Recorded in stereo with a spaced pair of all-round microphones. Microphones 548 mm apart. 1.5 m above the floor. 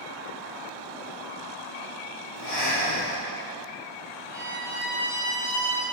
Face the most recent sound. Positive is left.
turn(degrees=-25)  # may be behind; listen again after turning